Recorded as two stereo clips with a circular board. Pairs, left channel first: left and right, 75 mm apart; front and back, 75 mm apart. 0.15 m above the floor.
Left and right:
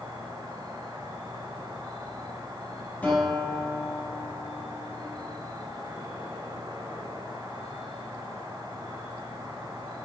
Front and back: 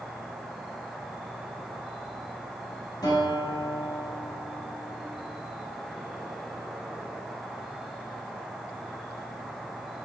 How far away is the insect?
About 1.1 m.